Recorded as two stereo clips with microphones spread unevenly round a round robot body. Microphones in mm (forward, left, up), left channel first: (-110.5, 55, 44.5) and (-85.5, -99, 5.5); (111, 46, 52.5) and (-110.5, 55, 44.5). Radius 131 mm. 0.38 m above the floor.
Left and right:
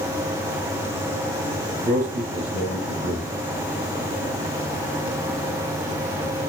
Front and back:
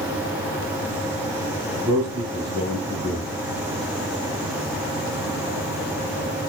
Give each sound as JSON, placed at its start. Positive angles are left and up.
{"t": 1.8, "sound": "a man speaking", "azimuth_deg": -115, "distance_m": 4.5}